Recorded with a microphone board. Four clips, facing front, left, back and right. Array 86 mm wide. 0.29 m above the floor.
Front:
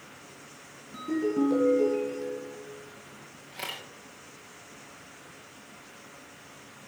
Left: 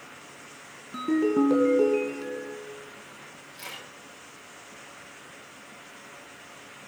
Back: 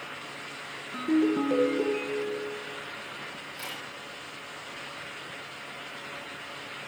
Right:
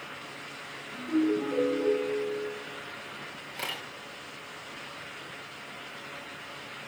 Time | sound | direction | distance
0.9 | a ringtone | 115° left | 2.5 m
3.5 | a camera shutter | 55° right | 5 m